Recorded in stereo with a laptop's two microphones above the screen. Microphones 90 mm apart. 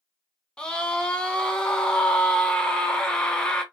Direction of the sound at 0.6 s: 10° left (ahead or behind).